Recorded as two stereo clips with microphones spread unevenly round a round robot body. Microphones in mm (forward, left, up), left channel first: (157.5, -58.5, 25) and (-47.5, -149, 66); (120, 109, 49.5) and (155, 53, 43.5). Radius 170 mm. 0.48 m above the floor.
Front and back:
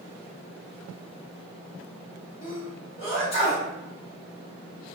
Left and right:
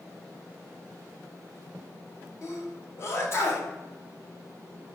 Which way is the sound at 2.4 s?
75° left.